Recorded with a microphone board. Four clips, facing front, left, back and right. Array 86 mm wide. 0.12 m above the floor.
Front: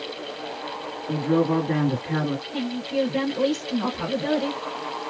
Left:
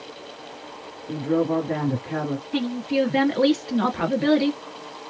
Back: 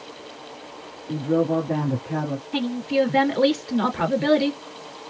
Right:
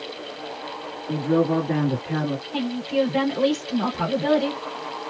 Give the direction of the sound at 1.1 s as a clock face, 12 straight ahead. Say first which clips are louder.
Right 1 dB, even; 12 o'clock.